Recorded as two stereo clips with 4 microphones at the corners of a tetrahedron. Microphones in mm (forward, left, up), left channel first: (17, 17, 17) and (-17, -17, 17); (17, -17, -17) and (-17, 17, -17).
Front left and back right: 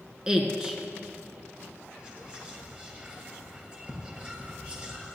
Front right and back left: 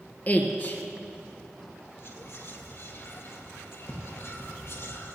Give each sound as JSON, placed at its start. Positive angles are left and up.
{"t": 0.3, "sound": "a woman speaking", "azimuth_deg": -70, "distance_m": 1.8}
{"t": 2.0, "sound": "whispering", "azimuth_deg": -70, "distance_m": 2.5}